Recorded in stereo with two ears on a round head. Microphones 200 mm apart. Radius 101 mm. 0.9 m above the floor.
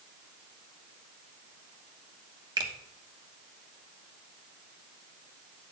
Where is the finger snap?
20° right (ahead or behind), 1.3 m.